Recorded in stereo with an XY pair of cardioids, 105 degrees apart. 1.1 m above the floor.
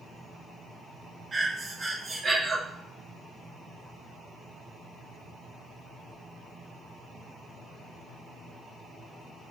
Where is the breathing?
30° right, 0.7 m.